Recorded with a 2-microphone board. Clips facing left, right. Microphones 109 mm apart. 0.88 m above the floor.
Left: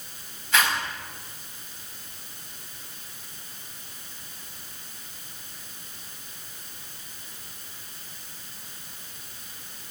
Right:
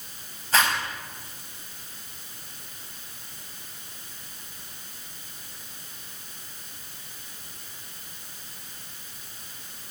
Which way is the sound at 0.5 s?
35° right (ahead or behind).